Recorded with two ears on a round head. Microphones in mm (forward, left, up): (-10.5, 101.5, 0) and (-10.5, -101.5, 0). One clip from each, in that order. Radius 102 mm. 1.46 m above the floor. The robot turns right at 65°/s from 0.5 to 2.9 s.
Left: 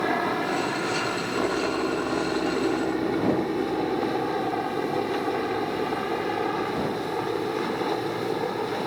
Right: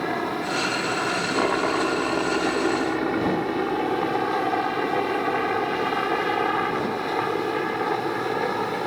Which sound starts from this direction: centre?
A helicopter, at 0.0 s.